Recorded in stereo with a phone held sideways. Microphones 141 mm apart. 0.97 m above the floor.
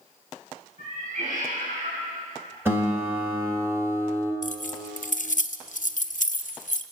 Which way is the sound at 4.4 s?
65° left (ahead or behind).